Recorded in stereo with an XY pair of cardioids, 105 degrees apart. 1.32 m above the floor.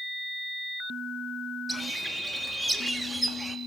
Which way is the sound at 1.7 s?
10° right.